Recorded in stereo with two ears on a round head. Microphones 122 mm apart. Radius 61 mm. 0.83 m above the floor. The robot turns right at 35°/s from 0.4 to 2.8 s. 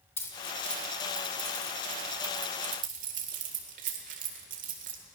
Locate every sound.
0.2 s keys jangling: 20° left (ahead or behind), 1.8 m; by 5.0 s 65° right (ahead or behind), 1.8 m